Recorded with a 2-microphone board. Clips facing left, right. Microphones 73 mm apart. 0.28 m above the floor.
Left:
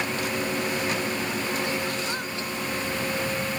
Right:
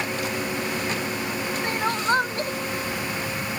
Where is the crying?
50° right (ahead or behind).